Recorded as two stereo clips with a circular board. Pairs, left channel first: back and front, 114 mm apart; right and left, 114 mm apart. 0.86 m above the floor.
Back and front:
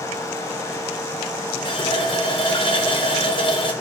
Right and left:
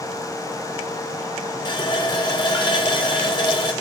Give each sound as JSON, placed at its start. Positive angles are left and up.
{"t": 1.6, "sound": "a running tap", "azimuth_deg": -135, "distance_m": 0.6}